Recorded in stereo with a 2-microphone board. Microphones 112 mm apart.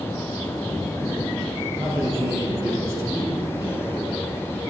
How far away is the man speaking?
About 5 m.